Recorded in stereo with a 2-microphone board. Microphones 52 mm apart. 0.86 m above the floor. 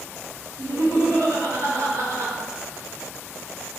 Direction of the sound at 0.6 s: 75° right (ahead or behind).